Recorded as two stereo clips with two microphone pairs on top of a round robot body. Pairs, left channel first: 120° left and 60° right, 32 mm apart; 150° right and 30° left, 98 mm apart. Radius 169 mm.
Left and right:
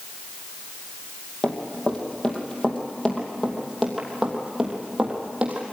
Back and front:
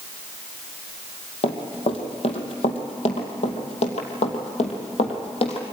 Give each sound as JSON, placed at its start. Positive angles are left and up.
{"t": 1.4, "sound": "running footsteps", "azimuth_deg": 180, "distance_m": 3.0}